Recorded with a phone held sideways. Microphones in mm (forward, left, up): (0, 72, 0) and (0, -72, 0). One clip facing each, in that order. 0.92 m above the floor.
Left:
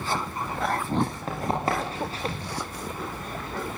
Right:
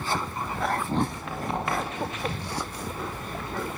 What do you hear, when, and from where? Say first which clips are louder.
1.1 s running footsteps: left 3 dB; 40° left (ahead or behind), 9 m; by 2.4 s 35° left (ahead or behind), 8.5 m